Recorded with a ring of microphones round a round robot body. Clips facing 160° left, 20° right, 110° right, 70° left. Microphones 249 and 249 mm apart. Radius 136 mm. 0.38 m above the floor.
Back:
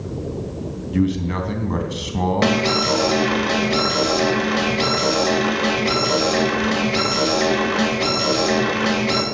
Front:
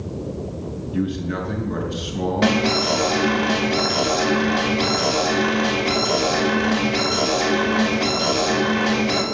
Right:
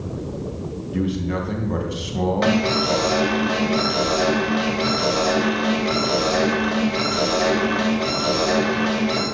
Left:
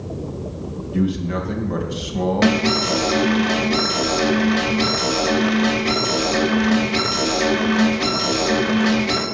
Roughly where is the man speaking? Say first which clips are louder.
Back 4 dB, left 2 dB; behind left.